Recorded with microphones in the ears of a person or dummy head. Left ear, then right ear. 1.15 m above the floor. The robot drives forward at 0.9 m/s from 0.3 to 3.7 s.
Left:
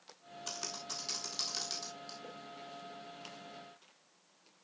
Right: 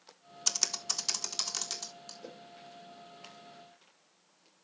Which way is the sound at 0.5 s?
65° right (ahead or behind).